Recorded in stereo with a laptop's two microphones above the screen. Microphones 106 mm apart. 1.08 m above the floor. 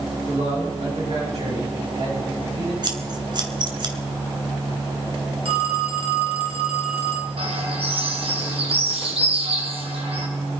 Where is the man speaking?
85° right, 7 m; by 2.7 s 80° right, 8 m.